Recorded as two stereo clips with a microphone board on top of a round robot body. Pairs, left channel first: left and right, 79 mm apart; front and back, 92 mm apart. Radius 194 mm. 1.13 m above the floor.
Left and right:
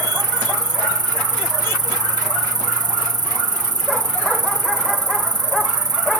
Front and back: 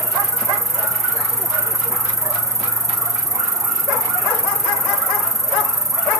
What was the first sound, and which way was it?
An insect, 125° right.